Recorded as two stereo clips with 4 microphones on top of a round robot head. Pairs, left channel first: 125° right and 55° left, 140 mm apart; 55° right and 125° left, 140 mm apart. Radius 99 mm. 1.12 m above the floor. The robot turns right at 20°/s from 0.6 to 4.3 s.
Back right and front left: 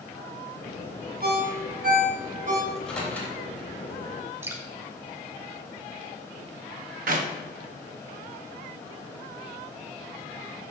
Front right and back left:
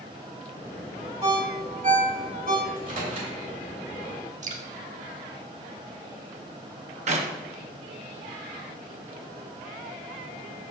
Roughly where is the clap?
Left.